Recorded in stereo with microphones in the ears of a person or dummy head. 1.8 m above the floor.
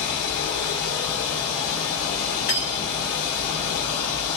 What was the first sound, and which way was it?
Running water, 70° left (ahead or behind).